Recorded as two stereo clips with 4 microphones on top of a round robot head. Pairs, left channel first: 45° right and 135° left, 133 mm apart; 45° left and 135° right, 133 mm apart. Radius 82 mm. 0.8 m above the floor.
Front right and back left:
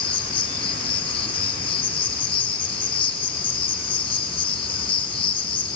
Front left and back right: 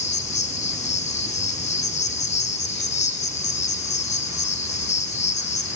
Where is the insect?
5° left, 2 m.